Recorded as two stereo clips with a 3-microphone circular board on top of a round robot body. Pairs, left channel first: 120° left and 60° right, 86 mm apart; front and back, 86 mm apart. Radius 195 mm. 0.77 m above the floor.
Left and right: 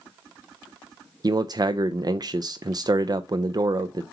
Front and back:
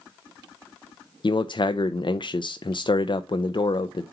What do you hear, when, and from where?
1.2 s a man speaking: 20° right, 0.6 m